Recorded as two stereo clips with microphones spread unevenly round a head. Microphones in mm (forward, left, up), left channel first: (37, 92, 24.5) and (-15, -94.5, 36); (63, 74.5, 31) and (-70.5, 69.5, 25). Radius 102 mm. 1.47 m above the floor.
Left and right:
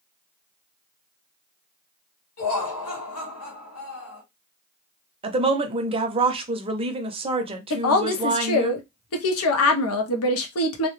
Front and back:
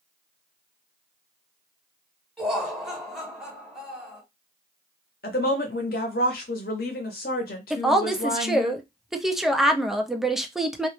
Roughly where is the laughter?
Left.